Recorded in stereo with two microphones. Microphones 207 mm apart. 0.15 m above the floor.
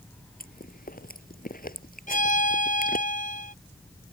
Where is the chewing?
45° left (ahead or behind).